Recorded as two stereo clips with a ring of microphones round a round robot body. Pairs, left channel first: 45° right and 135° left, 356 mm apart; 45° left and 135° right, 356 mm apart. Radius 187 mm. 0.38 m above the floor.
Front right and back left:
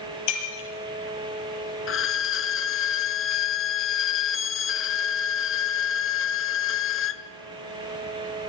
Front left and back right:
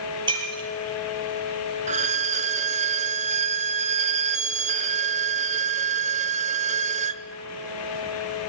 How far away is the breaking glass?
About 7 m.